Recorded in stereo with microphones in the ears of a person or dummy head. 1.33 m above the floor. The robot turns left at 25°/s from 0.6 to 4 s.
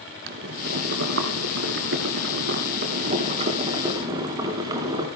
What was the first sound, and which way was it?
Boiling, 75° right.